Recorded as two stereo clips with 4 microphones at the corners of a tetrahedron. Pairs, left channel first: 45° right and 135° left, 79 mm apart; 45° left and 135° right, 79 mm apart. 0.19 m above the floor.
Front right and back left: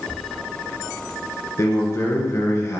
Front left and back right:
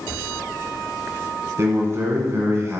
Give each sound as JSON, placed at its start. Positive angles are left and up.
{"t": 1.6, "sound": "a man speaking", "azimuth_deg": -90, "distance_m": 2.0}